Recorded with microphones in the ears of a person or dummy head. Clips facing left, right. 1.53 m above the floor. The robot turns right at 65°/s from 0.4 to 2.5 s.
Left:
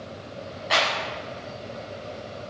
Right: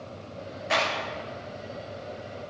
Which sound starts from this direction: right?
A clap, at 0.7 s.